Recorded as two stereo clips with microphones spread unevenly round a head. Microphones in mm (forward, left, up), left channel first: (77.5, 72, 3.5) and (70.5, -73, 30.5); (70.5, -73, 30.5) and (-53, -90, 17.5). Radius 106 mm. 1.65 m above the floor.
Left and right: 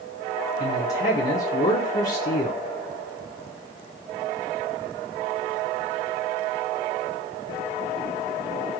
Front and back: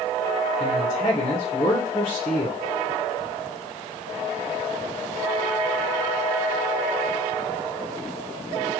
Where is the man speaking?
55° left, 0.6 m.